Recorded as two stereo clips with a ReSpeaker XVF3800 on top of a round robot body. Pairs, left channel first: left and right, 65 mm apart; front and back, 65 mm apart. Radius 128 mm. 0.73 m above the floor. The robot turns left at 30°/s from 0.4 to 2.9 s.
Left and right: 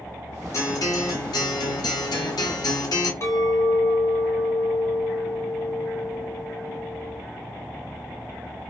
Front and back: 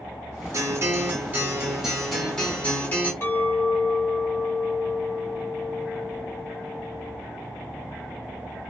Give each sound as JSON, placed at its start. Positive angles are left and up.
{"t": 0.5, "sound": "a guitar", "azimuth_deg": 135, "distance_m": 1.0}
{"t": 3.2, "sound": "a clink", "azimuth_deg": 45, "distance_m": 1.4}